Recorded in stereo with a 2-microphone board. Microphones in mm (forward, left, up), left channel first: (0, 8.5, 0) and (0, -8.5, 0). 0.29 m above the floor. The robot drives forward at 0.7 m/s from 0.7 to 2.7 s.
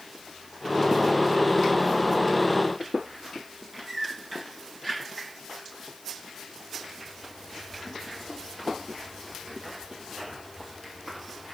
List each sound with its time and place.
Only background noise.